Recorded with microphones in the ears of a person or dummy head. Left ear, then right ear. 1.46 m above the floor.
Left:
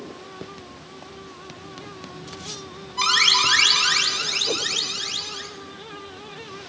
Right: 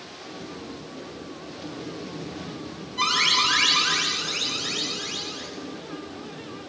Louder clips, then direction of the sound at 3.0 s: Left 3 dB; 10° left (ahead or behind).